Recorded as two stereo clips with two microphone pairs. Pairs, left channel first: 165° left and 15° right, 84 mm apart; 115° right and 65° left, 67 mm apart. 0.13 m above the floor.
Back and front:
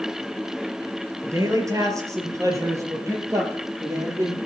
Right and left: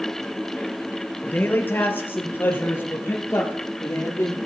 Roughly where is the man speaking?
Ahead right.